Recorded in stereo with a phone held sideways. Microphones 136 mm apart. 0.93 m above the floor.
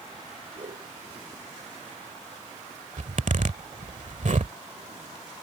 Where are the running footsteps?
I don't hear running footsteps.